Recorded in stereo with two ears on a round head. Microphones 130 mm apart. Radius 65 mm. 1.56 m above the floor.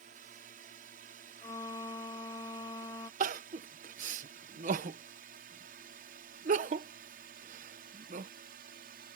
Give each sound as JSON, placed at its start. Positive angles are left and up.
{"t": 0.0, "sound": "a drone", "side_deg": -60}
{"t": 1.4, "sound": "a violin", "side_deg": 30}
{"t": 3.2, "sound": "crying", "side_deg": -60}